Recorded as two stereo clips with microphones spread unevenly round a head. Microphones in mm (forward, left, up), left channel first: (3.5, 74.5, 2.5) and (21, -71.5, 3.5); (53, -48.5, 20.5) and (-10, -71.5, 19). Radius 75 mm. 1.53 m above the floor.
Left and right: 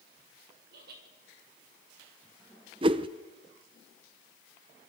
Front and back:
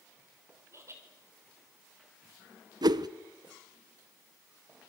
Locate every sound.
0.7 s laughter: 115° right, 7 m
2.8 s a whoosh: 140° right, 0.9 m